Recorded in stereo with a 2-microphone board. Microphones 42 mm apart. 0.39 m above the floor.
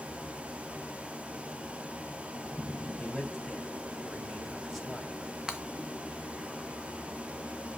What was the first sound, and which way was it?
A man speaking, centre (ahead or behind).